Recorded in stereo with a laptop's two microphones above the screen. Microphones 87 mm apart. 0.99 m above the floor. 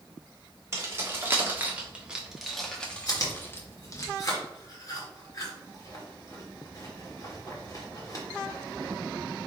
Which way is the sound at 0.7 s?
30° right (ahead or behind).